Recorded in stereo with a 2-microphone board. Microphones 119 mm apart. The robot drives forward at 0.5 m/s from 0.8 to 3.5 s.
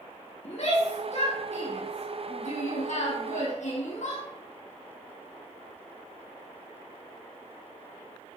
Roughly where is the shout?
Left.